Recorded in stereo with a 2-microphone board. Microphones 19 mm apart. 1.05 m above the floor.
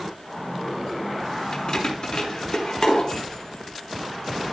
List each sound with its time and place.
1.5 s keys jangling: 40° left (ahead or behind), 1.2 m; by 4.5 s 45° left (ahead or behind), 3 m